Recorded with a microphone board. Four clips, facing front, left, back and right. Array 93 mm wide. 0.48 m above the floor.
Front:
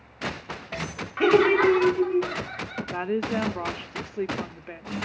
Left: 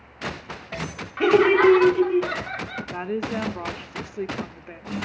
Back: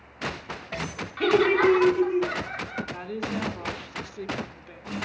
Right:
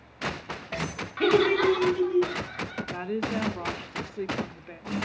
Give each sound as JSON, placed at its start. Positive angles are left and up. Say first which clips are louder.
{"t": 1.2, "sound": "laughter", "louder": "left 5 dB, front 2 dB", "azimuth_deg": 35, "distance_m": 1.0}
{"t": 2.9, "sound": "a woman speaking", "louder": "left 3 dB, front 9 dB", "azimuth_deg": 25, "distance_m": 1.0}